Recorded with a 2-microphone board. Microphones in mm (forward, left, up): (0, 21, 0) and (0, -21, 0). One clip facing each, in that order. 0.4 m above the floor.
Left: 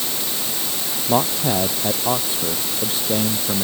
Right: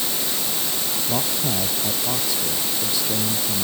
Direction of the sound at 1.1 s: 35° left (ahead or behind).